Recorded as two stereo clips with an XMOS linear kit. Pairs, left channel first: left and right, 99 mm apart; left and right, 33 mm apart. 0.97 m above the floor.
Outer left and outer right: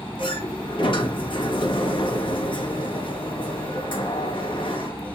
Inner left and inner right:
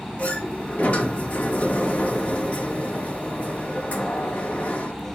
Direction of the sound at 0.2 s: 55° left (ahead or behind).